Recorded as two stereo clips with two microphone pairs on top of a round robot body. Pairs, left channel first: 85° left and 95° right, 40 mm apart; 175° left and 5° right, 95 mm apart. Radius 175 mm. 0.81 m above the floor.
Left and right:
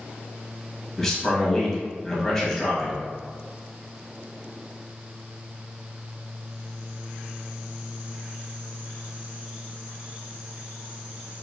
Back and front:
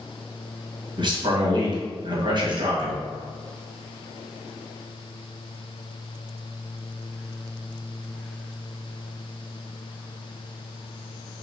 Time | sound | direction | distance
1.0 | a man speaking | 5° left | 1.8 m